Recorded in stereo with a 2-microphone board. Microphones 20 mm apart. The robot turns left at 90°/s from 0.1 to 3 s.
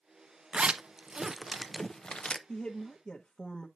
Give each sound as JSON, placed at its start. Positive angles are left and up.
{"t": 0.5, "sound": "a zipper", "side_deg": -80, "distance_m": 0.5}
{"t": 2.5, "sound": "a woman speaking", "azimuth_deg": 110, "distance_m": 1.0}